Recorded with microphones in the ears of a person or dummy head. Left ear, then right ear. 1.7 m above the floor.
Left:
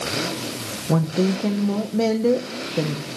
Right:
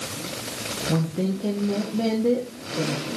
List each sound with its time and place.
0.9 s a woman speaking: 70° left (ahead or behind), 1.4 m